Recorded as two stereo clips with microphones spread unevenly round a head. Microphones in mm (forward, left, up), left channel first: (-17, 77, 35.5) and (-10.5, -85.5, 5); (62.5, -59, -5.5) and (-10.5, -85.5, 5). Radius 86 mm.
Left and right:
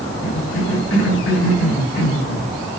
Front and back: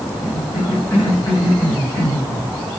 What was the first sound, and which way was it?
A cough, 95° left.